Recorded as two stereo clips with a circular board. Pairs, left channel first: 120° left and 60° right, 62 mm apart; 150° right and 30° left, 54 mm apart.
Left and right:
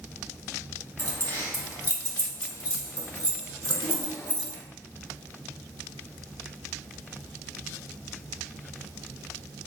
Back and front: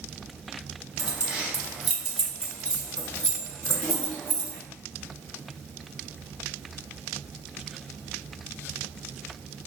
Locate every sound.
1.0 s keys jangling: 80° left, 1.2 m; by 4.6 s 160° left, 2 m